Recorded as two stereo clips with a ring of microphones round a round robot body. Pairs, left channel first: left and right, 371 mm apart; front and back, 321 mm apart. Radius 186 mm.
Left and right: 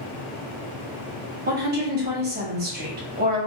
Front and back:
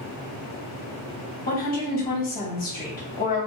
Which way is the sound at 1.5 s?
45° right.